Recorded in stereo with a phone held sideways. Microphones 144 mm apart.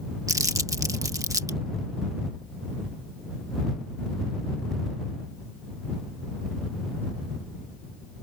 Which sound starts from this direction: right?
Crumpling, at 0.3 s.